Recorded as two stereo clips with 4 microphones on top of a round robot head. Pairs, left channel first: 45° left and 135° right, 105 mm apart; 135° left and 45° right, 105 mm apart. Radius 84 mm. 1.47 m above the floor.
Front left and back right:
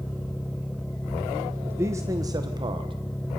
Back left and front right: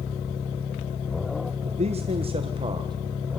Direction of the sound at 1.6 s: 65° right.